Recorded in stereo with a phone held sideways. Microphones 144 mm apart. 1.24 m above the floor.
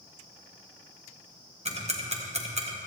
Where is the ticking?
50° right (ahead or behind), 1.3 m.